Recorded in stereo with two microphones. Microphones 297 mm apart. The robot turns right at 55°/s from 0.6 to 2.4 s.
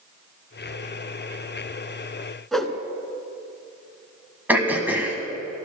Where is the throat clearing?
5° right (ahead or behind), 1.6 m.